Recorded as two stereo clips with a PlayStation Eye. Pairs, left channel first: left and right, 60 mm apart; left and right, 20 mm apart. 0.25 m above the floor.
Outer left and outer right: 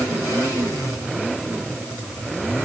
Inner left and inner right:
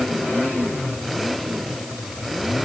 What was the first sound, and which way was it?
Only background noise.